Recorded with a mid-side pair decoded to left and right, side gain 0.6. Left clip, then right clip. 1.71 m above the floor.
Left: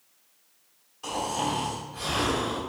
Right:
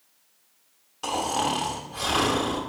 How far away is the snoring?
About 1.1 m.